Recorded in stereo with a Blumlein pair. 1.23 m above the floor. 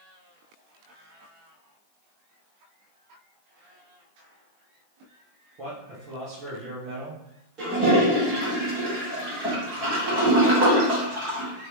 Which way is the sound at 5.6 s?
40° right.